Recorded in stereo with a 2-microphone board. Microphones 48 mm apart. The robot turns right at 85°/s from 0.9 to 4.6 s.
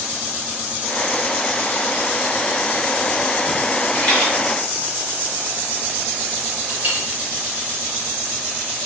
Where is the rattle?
35° left (ahead or behind), 1.7 m; by 4.3 s 5° left (ahead or behind), 1.7 m.